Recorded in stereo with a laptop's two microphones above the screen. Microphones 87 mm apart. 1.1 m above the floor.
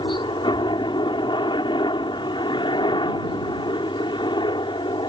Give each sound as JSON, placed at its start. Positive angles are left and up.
{"t": 0.0, "sound": "a helicopter", "side_deg": 65}